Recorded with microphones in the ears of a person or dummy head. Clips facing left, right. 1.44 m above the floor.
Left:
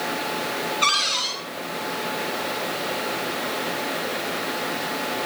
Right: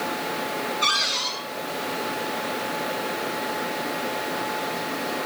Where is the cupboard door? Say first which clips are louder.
Left 1 dB; 5° right (ahead or behind), 9 m.